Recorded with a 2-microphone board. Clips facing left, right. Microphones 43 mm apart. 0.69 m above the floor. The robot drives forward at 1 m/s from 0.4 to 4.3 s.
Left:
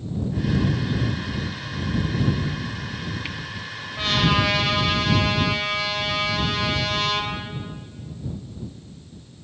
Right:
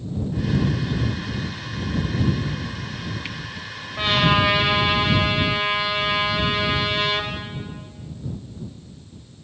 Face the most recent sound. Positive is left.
turn(degrees=-20)  # may be behind; listen again after turning